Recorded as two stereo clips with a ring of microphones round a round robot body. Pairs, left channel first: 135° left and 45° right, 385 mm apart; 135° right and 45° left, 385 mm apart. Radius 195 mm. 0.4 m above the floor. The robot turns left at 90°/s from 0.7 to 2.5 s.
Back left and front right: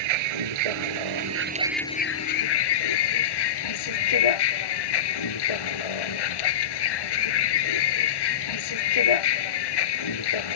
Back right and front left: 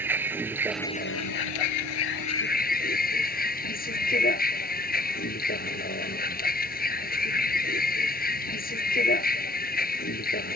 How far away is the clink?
No clink in this recording.